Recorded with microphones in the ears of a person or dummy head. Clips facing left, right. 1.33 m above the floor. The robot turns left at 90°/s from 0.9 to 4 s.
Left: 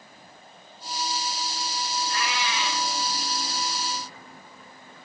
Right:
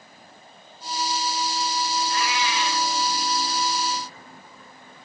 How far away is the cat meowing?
About 6.5 m.